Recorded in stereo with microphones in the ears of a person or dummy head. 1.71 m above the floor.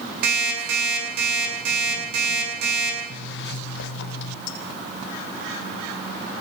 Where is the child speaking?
I don't hear a child speaking.